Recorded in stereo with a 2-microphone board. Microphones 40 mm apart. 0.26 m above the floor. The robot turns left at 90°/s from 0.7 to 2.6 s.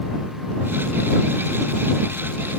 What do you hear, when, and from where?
Only background noise.